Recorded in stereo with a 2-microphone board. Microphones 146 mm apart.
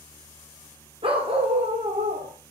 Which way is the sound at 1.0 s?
40° right (ahead or behind).